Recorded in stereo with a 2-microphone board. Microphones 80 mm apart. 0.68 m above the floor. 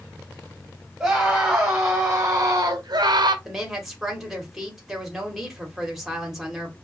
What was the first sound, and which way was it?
A scream, 10° right (ahead or behind).